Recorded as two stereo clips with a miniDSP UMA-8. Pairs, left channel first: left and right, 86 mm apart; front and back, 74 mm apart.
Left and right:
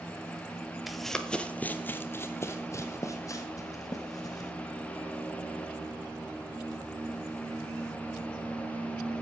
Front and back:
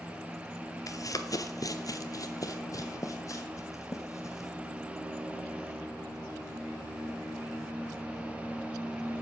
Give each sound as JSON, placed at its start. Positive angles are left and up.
{"t": 0.9, "sound": "running footsteps", "azimuth_deg": -5, "distance_m": 0.9}